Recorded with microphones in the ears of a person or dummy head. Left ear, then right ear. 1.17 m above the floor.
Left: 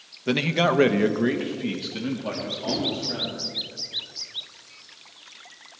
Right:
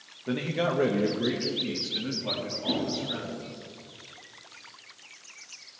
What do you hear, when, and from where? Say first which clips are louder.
0.3 s a man speaking: left 7 dB; 70° left (ahead or behind), 1.2 m; by 3.5 s 10° left (ahead or behind), 3.5 m
2.7 s a whoosh: left 1 dB; 30° left (ahead or behind), 8 m